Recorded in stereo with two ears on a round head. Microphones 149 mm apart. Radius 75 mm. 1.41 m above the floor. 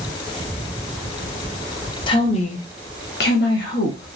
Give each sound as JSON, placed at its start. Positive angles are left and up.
{"t": 2.1, "sound": "a woman speaking", "side_deg": 30, "distance_m": 0.7}